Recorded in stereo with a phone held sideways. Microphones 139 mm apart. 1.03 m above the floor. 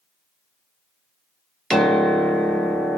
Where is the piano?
Centre (ahead or behind), 0.8 m.